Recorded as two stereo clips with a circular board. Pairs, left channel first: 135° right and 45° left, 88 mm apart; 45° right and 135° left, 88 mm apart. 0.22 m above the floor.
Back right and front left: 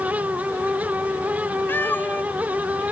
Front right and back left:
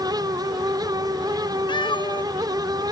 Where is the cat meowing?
70° right.